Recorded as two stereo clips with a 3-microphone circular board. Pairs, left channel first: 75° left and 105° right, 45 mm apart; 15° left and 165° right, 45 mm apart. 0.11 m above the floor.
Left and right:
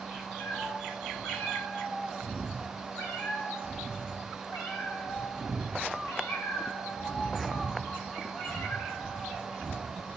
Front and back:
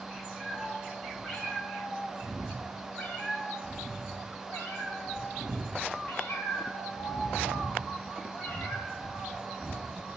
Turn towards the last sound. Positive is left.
turn(degrees=70)